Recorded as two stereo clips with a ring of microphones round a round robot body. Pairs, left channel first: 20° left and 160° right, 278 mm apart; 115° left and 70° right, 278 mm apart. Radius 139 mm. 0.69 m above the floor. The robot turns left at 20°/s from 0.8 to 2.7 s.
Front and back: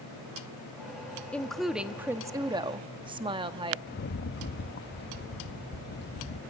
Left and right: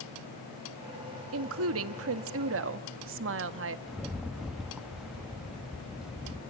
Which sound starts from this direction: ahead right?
A woman speaking, at 1.3 s.